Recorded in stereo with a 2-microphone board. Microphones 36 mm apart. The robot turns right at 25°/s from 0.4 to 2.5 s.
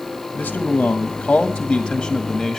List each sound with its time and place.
0.3 s a man speaking: 135° left, 1.4 m; by 2.6 s 170° right, 1.4 m